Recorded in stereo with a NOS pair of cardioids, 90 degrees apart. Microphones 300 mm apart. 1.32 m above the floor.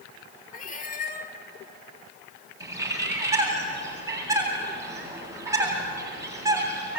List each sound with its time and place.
0.5 s a cat meowing: 25° left, 1.9 m
2.6 s a bird: 10° right, 8.5 m